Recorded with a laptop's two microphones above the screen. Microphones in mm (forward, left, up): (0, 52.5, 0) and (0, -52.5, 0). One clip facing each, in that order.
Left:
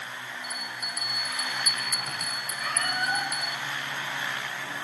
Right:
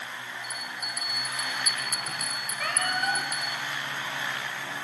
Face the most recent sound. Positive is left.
turn(degrees=-65)  # may be behind; listen again after turning